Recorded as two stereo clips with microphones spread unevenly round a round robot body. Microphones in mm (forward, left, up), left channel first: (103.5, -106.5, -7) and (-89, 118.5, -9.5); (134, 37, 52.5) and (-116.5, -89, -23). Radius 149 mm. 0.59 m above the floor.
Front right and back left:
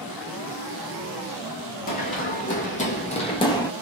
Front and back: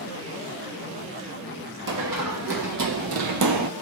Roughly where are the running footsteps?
Right.